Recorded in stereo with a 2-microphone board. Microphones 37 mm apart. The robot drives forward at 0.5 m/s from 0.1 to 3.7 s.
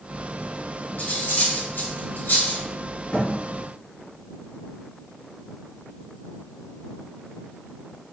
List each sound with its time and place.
1.0 s cutlery clinking: 60° left (ahead or behind), 1.7 m; by 2.6 s 70° left (ahead or behind), 1.6 m
3.1 s a thud: 35° left (ahead or behind), 1.8 m; by 3.3 s 30° left (ahead or behind), 1.8 m